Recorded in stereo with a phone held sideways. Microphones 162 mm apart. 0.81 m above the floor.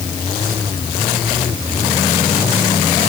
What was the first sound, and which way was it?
Only background noise.